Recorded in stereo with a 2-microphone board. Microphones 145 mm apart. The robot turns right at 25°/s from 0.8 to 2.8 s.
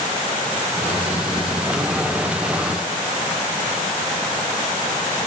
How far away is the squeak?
I don't hear a squeak.